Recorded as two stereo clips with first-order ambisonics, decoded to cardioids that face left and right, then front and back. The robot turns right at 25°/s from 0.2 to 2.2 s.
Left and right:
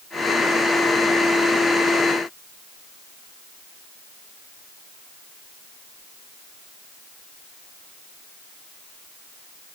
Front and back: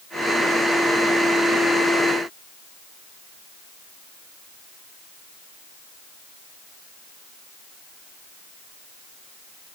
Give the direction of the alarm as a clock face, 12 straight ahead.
No alarm in this recording.